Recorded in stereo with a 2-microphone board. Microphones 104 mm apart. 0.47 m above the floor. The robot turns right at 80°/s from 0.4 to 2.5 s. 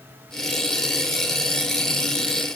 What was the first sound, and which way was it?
Only background noise.